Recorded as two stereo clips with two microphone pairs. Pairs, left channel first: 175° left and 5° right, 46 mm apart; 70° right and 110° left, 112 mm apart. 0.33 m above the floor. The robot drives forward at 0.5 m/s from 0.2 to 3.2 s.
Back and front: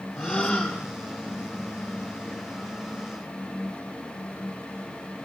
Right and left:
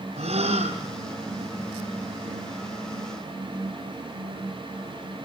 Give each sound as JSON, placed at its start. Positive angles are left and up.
{"t": 0.2, "sound": "a gasp", "azimuth_deg": 90, "distance_m": 3.5}